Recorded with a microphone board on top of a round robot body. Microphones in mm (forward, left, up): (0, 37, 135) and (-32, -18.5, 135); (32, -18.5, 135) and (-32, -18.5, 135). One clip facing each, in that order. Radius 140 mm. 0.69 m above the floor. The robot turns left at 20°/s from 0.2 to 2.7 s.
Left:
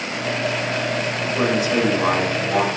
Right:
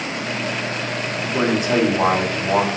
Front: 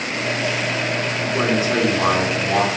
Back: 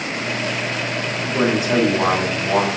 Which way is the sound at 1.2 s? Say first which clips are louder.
Right 1 dB, back 1 dB; 105° right.